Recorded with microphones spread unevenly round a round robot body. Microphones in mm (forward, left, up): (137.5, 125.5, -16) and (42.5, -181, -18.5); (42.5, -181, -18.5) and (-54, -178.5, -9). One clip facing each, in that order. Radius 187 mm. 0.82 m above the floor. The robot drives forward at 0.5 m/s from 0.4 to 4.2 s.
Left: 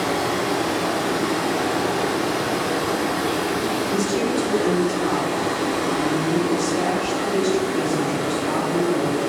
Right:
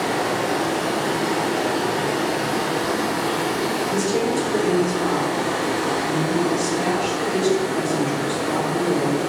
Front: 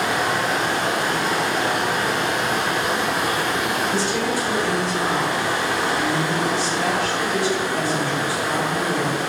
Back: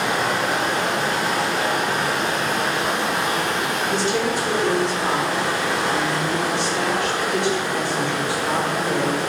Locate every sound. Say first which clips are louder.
0.0 s running water: even, even; 130° left, 1.0 m; by 9.3 s 165° left, 2.5 m
3.9 s a woman speaking: right 1 dB, back 1 dB; 145° right, 1.3 m; by 9.2 s 150° right, 1.4 m